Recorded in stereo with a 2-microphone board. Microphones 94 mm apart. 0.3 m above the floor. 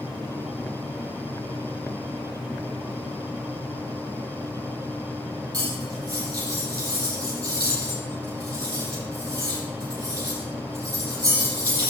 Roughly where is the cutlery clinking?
Right.